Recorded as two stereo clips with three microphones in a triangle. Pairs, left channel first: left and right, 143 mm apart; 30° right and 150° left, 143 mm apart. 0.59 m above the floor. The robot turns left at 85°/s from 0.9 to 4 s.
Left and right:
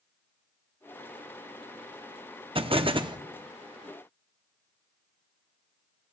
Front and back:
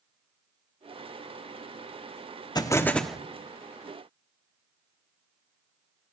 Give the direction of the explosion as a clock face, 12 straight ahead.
2 o'clock.